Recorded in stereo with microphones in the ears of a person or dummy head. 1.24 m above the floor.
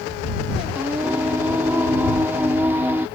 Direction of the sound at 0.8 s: 10° right (ahead or behind).